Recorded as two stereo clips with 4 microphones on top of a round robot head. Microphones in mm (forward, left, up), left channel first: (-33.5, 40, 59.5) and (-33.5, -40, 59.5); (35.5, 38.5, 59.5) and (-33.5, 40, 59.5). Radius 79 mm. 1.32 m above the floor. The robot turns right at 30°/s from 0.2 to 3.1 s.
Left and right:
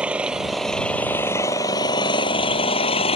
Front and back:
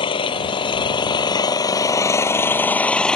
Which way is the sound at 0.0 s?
10° right.